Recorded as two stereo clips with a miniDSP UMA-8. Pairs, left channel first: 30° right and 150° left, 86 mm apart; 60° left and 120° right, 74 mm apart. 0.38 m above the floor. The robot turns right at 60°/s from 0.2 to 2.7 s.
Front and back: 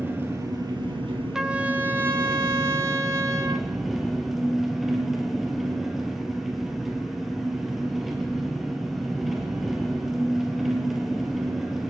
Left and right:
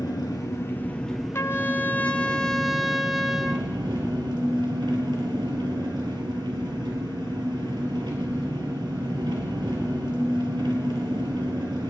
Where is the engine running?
85° left, 3 m; by 11.9 s 125° right, 3 m.